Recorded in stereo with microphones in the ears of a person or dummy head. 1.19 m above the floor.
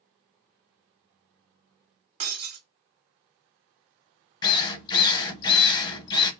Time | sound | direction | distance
2.2 | breaking glass | 55° right (ahead or behind) | 1.7 m
4.4 | a drill | 25° left (ahead or behind) | 1.0 m